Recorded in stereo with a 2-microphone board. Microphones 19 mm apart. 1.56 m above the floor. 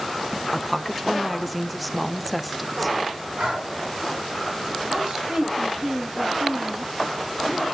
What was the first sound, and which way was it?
A woman speaking, 5° right (ahead or behind).